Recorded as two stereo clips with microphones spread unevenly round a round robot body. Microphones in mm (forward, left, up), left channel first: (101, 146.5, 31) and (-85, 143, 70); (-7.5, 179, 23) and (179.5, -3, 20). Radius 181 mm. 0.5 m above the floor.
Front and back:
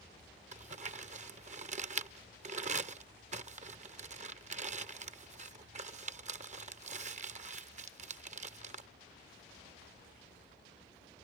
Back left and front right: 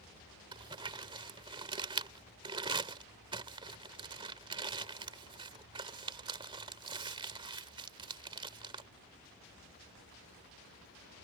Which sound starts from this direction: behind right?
Crumpling, at 0.5 s.